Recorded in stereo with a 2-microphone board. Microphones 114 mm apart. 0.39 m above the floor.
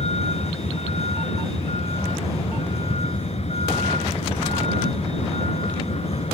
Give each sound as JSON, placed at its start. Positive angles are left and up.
{"t": 0.0, "sound": "a vehicle", "side_deg": 70}